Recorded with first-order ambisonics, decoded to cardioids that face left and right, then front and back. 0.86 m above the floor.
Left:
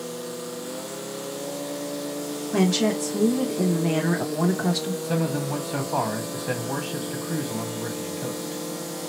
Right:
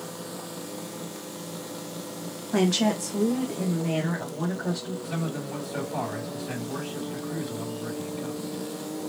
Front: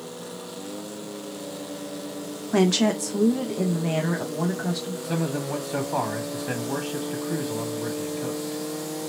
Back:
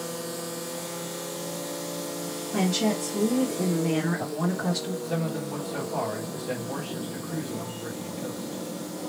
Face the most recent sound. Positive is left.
turn(degrees=45)